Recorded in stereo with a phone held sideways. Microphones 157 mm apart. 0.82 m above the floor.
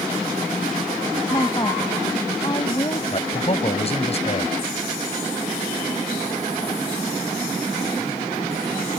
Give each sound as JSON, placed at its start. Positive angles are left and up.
{"t": 1.3, "sound": "a woman speaking", "side_deg": 30}
{"t": 3.1, "sound": "a man speaking", "side_deg": 40}